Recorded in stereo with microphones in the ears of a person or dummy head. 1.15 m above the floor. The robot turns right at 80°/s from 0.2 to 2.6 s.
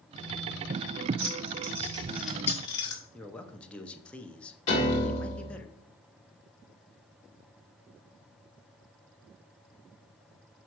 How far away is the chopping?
No chopping in this recording.